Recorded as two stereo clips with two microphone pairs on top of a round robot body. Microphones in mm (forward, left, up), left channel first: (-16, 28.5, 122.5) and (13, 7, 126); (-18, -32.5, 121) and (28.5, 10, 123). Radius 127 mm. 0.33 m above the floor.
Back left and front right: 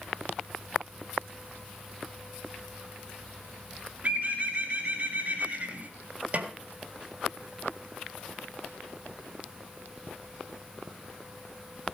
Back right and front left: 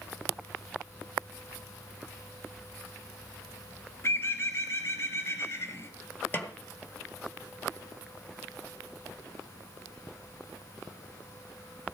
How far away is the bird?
About 2 m.